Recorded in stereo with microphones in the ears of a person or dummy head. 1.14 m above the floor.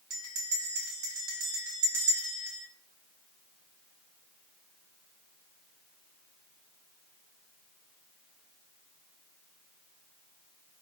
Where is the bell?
85° right, 1.4 m.